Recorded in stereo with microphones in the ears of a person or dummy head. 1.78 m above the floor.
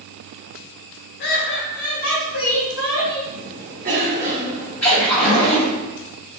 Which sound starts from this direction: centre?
A splash, at 4.8 s.